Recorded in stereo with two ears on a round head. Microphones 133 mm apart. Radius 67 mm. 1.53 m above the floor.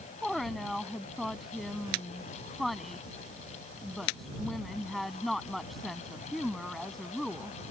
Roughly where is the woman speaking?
Centre.